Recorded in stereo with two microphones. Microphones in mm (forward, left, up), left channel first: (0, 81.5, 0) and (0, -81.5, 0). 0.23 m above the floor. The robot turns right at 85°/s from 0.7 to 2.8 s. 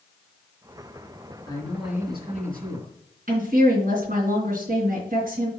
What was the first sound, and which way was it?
A man speaking, 155° left.